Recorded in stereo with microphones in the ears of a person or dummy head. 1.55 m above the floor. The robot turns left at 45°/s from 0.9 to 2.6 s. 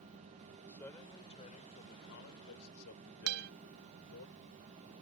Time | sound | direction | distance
0.7 | a man speaking | 170° left | ?
3.3 | a guitar | 55° right (ahead or behind) | ?